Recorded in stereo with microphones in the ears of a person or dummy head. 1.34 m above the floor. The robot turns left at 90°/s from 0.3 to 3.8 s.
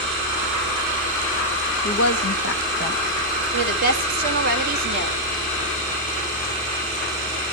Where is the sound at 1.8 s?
130° left, 1.6 m; by 3.0 s 20° left, 1.6 m.